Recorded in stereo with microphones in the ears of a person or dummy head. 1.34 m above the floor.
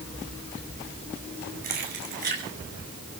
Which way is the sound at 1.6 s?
50° right (ahead or behind).